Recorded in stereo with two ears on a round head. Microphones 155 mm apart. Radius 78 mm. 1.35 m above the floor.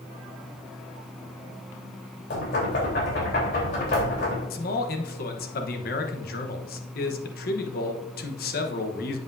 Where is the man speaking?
55° left (ahead or behind), 1.1 m.